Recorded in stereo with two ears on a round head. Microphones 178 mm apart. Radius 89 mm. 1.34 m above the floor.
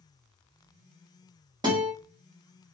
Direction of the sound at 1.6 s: 20° right (ahead or behind).